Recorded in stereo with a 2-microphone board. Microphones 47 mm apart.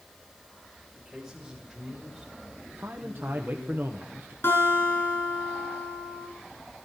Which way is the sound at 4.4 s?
65° left (ahead or behind).